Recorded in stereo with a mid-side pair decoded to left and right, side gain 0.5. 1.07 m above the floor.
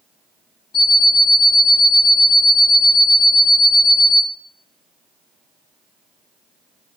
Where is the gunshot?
No gunshot in this recording.